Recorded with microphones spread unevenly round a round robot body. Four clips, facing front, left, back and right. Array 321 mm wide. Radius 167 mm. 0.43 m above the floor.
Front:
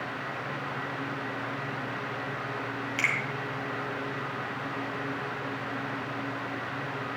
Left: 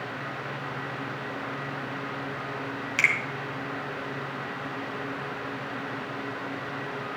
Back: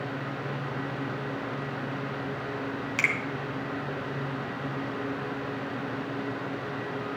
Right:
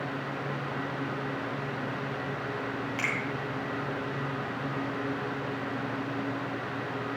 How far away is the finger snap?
About 2.5 m.